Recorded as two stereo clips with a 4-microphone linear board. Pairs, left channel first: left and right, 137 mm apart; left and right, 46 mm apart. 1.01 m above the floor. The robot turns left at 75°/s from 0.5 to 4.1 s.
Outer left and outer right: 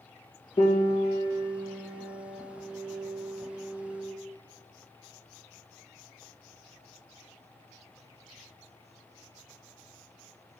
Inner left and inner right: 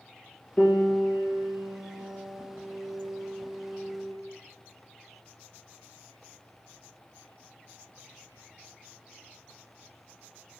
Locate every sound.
0.6 s a piano: 45° left, 1.6 m; by 4.2 s 140° left, 1.6 m